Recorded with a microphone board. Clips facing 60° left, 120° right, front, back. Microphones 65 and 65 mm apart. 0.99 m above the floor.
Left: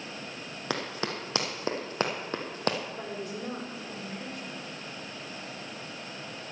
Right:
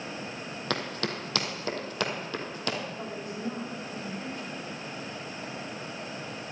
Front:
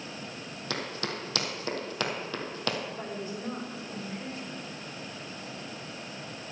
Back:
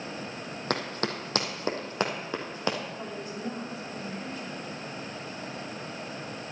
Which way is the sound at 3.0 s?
60° left.